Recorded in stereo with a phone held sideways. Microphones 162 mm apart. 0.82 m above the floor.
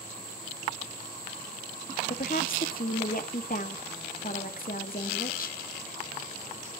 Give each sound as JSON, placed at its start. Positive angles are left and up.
{"t": 2.1, "sound": "a woman speaking", "side_deg": 60, "distance_m": 1.5}